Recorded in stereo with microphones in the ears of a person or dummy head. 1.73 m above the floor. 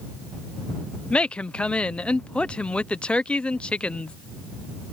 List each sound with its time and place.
1.1 s a woman speaking: 5° left (ahead or behind)